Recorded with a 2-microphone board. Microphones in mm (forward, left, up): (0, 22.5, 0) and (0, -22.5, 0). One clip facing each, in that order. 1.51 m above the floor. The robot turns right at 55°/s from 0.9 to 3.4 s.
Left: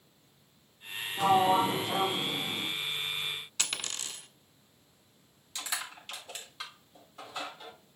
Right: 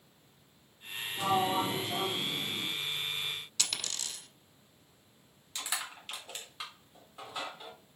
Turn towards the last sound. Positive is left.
turn(degrees=-10)  # may be behind; listen again after turning